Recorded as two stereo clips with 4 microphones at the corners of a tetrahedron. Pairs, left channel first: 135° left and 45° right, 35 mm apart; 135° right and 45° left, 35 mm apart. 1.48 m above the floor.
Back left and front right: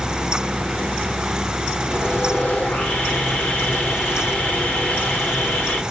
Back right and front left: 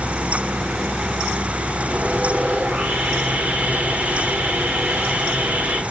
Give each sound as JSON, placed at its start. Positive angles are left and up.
{"t": 1.9, "sound": "sawing", "azimuth_deg": 85, "distance_m": 2.5}